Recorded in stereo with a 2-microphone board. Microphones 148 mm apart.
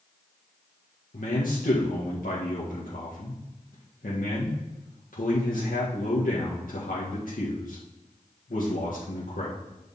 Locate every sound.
1.1 s a man speaking: 80° left, 1.7 m